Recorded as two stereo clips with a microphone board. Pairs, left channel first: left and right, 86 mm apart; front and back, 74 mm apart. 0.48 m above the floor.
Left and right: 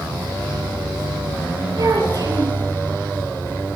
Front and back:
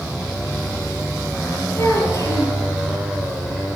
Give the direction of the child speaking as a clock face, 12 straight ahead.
2 o'clock.